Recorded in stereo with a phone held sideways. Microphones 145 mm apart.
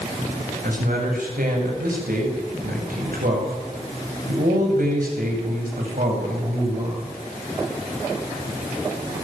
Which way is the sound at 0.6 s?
80° right.